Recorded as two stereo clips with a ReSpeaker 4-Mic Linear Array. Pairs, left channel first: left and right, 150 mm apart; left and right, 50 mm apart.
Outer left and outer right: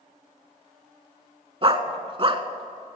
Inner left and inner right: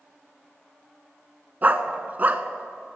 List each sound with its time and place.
1.6 s a dog barking: 35° right (ahead or behind), 0.8 m